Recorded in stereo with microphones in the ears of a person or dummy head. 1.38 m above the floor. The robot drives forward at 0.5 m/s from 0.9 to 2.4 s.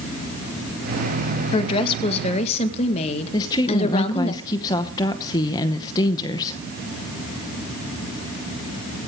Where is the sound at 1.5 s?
25° left (ahead or behind), 2.5 m; by 4.3 s 35° left (ahead or behind), 1.9 m.